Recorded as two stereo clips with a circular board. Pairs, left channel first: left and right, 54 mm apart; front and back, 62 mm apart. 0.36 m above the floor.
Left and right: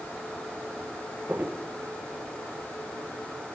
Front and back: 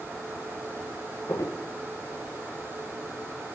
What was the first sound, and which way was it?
Footsteps, 35° right.